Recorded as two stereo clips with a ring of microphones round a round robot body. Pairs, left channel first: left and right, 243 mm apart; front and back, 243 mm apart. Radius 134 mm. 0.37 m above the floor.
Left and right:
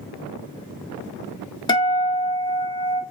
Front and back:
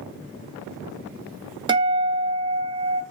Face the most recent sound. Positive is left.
turn(degrees=135)